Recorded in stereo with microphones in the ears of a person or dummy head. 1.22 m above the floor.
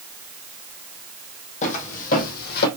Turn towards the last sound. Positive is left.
turn(degrees=60)  # may be behind; listen again after turning